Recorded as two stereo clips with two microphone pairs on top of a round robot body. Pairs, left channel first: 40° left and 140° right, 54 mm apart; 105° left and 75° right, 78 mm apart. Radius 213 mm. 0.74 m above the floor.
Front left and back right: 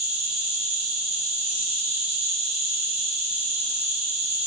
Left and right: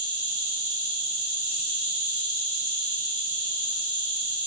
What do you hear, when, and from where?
0.0 s an insect: 60° right, 1.7 m